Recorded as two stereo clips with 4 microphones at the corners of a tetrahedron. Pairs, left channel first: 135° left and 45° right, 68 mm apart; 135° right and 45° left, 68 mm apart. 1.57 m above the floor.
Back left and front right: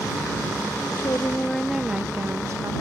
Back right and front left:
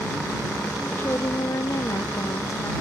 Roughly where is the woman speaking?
Behind.